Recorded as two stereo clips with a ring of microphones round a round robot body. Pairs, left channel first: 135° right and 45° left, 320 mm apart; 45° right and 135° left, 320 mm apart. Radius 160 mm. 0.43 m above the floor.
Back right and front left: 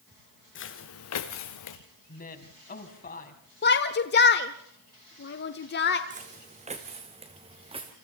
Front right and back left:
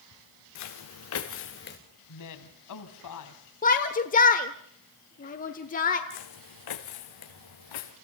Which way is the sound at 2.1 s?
70° right.